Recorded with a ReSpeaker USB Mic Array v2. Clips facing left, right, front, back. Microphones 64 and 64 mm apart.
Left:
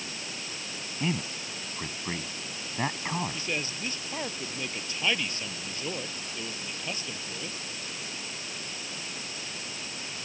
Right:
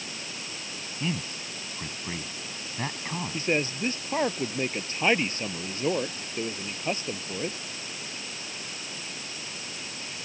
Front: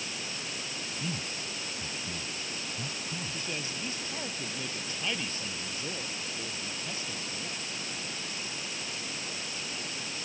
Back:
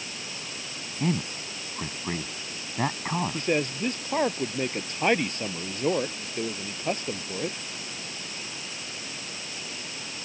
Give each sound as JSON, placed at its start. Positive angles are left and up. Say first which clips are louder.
{"t": 1.0, "sound": "a man speaking", "louder": "left 1 dB, back 11 dB", "azimuth_deg": 165}
{"t": 3.3, "sound": "a man speaking", "louder": "right 6 dB, back 11 dB", "azimuth_deg": -145}